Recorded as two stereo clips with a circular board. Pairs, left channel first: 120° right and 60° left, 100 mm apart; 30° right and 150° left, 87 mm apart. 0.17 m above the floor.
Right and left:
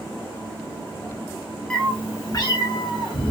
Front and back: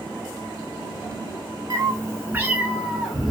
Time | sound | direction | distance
1.7 | a cat meowing | 160° left | 0.6 m